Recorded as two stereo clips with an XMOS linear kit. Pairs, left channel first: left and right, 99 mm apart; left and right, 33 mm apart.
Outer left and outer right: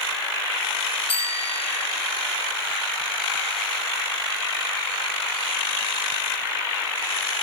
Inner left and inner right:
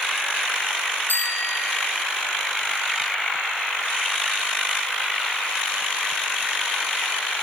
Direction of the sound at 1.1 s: 75° left (ahead or behind).